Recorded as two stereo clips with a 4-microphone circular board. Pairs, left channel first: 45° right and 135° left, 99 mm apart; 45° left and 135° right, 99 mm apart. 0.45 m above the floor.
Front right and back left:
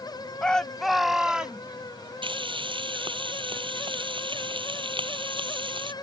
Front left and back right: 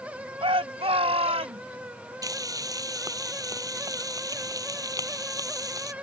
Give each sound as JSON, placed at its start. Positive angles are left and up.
{"t": 0.4, "sound": "a shout", "azimuth_deg": -125}
{"t": 2.2, "sound": "frying", "azimuth_deg": 170}